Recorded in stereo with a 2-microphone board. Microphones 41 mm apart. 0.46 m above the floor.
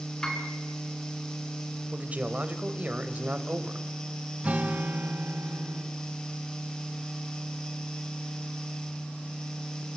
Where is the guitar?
30° right (ahead or behind), 2.5 m.